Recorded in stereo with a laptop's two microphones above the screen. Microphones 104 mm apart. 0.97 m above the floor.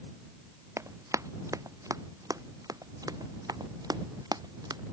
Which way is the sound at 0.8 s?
30° right (ahead or behind).